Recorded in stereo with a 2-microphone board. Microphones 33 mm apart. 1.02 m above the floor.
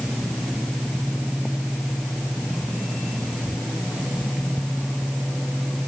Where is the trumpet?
I don't hear a trumpet.